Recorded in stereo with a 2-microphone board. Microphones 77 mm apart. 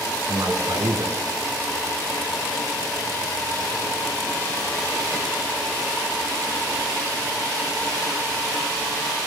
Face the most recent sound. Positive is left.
turn(degrees=-50)  # may be behind; listen again after turning